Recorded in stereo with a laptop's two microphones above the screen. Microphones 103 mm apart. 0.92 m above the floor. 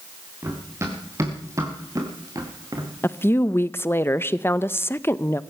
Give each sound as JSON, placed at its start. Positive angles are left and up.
{"t": 0.4, "sound": "running footsteps", "side_deg": -25, "distance_m": 5.5}
{"t": 3.0, "sound": "a woman speaking", "side_deg": 25, "distance_m": 0.6}